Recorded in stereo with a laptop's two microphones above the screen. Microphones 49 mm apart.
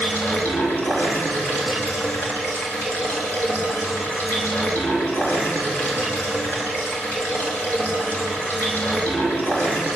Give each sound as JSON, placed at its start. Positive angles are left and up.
{"t": 0.0, "sound": "running water", "side_deg": 35, "distance_m": 5.5}